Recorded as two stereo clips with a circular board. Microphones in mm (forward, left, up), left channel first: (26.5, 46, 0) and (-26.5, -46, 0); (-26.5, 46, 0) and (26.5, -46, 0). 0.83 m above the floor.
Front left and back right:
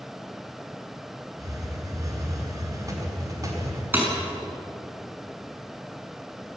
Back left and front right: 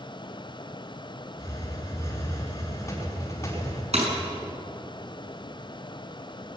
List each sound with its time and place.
1.4 s a hiss: 175° right, 5 m
3.9 s breaking glass: 50° right, 6 m